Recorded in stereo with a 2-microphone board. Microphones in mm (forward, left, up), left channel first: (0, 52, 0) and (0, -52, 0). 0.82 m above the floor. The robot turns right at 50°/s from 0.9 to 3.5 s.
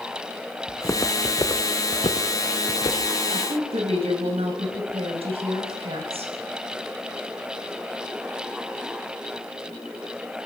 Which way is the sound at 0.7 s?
30° left (ahead or behind).